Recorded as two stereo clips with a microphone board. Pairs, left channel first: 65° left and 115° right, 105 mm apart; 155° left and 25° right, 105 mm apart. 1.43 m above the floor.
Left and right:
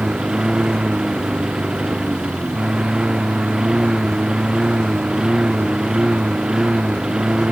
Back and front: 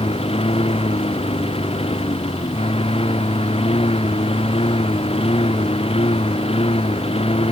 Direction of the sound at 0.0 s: 165° left.